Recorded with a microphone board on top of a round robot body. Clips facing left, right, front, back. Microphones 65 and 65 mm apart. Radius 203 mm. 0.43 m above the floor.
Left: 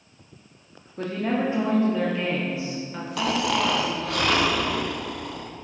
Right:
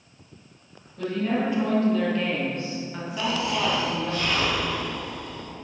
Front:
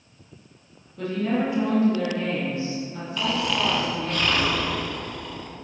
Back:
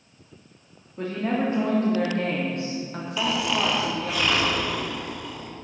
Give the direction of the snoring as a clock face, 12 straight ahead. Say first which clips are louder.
Left 2 dB, even; 9 o'clock.